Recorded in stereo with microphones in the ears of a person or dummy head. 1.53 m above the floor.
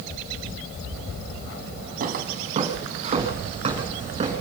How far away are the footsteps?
About 3.5 m.